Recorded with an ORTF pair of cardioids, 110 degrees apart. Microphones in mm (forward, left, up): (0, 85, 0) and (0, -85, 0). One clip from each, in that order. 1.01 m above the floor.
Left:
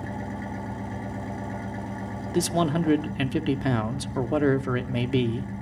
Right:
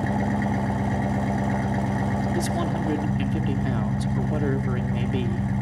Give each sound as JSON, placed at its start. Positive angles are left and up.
{"t": 0.0, "sound": "an engine running", "azimuth_deg": -45, "distance_m": 0.9}
{"t": 2.3, "sound": "a man speaking", "azimuth_deg": 35, "distance_m": 2.5}